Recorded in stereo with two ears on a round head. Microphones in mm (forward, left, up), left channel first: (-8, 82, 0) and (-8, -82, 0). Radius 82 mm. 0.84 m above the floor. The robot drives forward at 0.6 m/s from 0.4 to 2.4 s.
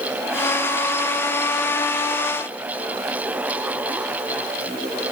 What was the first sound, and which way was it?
Only background noise.